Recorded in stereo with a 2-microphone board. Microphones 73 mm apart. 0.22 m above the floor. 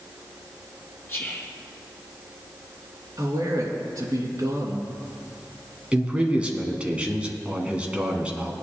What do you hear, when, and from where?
1.1 s whispering: 35° left (ahead or behind), 1.9 m
3.2 s a man speaking: 55° right (ahead or behind), 3.5 m
5.9 s a man speaking: 15° right (ahead or behind), 1.9 m